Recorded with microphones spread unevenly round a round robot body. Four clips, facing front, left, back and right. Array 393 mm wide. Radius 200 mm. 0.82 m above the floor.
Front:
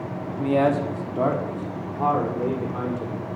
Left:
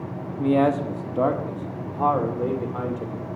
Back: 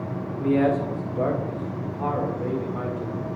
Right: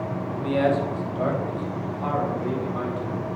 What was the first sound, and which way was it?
A man speaking, 45° left.